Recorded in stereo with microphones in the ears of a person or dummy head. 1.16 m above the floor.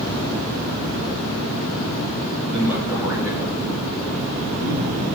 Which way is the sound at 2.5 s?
15° right (ahead or behind).